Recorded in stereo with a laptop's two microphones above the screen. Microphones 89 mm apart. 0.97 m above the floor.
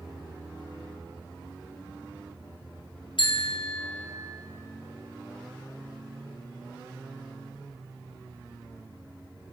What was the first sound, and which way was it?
A bicycle bell, 65° left (ahead or behind).